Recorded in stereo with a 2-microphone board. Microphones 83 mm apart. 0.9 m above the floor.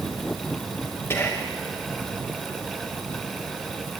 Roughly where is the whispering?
Left.